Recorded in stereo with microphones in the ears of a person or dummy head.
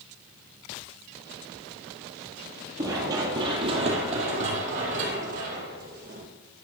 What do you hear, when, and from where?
2.8 s running footsteps: 20° right (ahead or behind), 1.7 m; by 6.2 s 55° right (ahead or behind), 4.5 m